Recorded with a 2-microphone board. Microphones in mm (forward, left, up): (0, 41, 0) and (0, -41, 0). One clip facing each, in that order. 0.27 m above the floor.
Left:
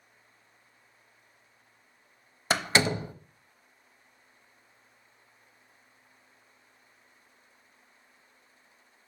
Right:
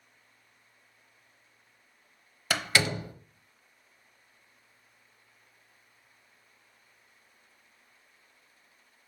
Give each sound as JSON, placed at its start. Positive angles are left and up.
{"t": 2.5, "sound": "a door slam", "side_deg": 25, "distance_m": 0.7}